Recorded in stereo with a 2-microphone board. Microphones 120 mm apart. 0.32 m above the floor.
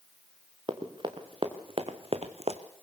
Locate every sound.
0.7 s running footsteps: 40° right (ahead or behind), 2.5 m; by 2.6 s 65° right (ahead or behind), 1.4 m